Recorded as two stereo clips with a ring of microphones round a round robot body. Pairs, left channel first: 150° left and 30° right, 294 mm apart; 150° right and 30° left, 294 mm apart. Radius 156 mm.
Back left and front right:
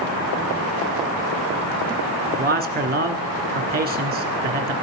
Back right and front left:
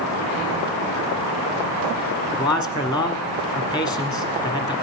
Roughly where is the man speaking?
Right.